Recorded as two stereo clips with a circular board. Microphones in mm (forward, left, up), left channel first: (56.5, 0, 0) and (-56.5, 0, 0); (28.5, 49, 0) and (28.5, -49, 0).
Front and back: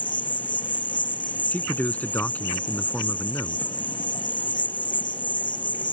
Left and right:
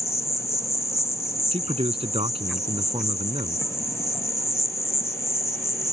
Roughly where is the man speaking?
Right.